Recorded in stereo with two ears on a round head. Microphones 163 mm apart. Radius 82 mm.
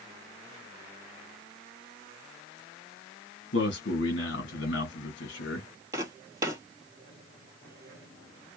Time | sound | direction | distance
3.5 | a man speaking | 65° left (ahead or behind) | 1.5 m
5.9 | footsteps | 15° right (ahead or behind) | 1.8 m